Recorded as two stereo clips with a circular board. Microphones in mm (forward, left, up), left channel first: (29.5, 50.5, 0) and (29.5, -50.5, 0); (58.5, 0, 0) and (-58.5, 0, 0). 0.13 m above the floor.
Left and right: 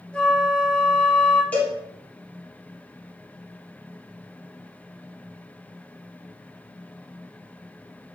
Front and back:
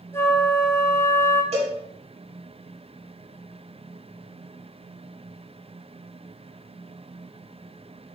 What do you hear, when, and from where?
0.1 s a flute: 25° left, 0.8 m
1.5 s a cowbell: 165° left, 1.8 m